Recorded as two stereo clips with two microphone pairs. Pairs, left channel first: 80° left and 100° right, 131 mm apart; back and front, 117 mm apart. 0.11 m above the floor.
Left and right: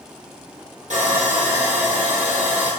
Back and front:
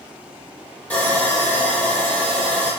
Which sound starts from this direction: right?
Sawing, at 0.9 s.